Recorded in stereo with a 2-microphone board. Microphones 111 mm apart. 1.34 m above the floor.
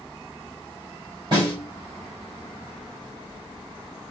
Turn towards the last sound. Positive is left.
turn(degrees=-45)  # may be behind; listen again after turning